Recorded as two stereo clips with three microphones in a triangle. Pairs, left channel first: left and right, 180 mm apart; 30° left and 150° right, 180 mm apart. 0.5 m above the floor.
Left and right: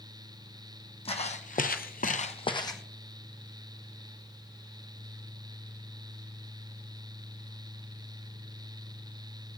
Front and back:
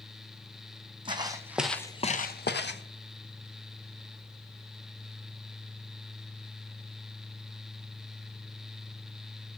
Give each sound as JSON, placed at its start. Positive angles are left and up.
{"t": 1.1, "sound": "footsteps", "azimuth_deg": 150, "distance_m": 1.3}